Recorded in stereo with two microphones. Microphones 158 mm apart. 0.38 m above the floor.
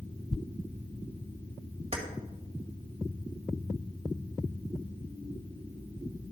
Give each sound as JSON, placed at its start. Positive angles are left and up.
{"t": 1.9, "sound": "keys jangling", "side_deg": -40, "distance_m": 1.3}